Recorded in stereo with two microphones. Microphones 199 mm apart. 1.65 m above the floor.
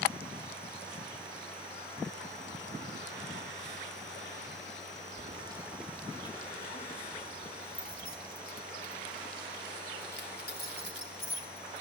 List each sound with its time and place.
5.2 s keys jangling: 35° right (ahead or behind), 0.8 m; by 11.8 s 55° left (ahead or behind), 4.5 m